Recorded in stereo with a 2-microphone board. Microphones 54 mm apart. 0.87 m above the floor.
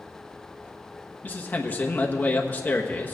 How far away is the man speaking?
About 1.1 m.